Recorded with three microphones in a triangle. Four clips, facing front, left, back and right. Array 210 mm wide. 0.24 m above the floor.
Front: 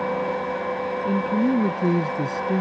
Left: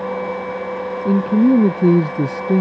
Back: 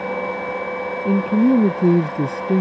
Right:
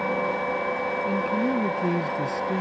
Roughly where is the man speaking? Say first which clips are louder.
Left 13 dB, back 6 dB; behind left.